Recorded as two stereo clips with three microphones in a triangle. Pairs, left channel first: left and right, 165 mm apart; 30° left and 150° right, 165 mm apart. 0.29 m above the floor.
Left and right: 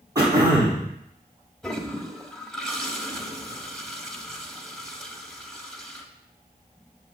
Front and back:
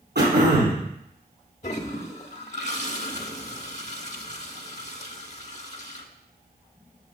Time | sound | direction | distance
0.1 | throat clearing | 160° right | 3 m
1.6 | a toilet flushing | 5° left | 0.7 m